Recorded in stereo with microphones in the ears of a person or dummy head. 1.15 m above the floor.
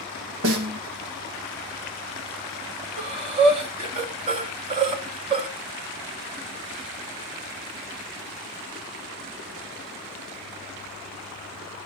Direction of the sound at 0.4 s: 70° right (ahead or behind).